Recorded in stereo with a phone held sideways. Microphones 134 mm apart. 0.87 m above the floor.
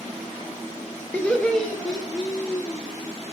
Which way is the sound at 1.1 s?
10° left (ahead or behind).